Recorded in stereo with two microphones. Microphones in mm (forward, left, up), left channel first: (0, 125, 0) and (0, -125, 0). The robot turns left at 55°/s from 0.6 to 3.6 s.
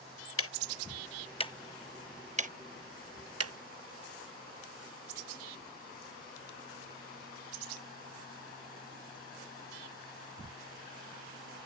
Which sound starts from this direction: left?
Ticking, at 0.4 s.